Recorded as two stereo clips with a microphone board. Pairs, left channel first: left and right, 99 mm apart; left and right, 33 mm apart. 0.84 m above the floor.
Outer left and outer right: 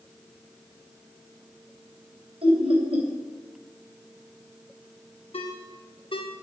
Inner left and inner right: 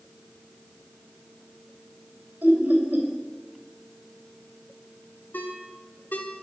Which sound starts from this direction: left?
A ringtone, at 5.3 s.